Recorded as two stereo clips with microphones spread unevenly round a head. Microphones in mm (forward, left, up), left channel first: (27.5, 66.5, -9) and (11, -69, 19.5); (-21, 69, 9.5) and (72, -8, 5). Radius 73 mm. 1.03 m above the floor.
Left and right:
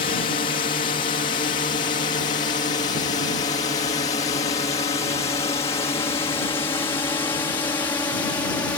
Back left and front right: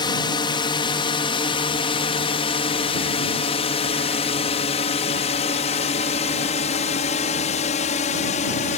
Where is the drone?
100° left; by 8.8 s 155° left.